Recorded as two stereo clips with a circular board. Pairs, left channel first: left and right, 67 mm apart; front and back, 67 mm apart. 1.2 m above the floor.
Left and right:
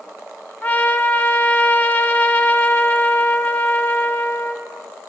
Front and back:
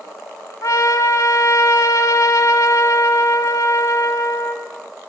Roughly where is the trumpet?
Ahead left.